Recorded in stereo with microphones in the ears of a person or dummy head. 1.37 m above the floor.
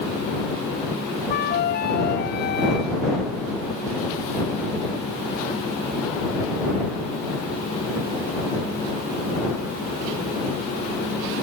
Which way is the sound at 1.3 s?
55° left (ahead or behind).